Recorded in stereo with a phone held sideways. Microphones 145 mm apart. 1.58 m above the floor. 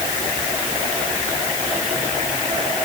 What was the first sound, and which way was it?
Only background noise.